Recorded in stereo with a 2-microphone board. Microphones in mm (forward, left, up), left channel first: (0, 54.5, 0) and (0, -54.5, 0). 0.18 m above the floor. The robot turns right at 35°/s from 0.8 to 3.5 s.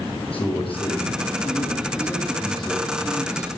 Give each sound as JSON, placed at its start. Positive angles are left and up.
{"t": 0.3, "sound": "a man speaking", "azimuth_deg": 120, "distance_m": 7.0}